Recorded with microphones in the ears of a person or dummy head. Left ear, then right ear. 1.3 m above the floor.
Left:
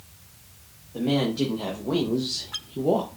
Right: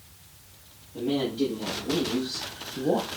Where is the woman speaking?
65° left (ahead or behind), 1.5 m; by 3.2 s 10° right (ahead or behind), 0.6 m.